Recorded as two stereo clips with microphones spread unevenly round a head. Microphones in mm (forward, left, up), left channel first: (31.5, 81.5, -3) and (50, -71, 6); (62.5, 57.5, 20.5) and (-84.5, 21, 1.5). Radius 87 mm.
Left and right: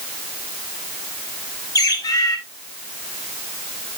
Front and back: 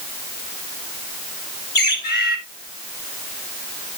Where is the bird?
30° left, 2 m.